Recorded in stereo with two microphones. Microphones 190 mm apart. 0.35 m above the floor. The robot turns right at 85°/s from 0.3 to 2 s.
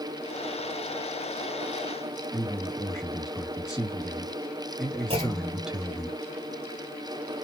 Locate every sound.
2.3 s a man speaking: 5° right (ahead or behind), 1.8 m
5.1 s a clunk: 30° right (ahead or behind), 1.3 m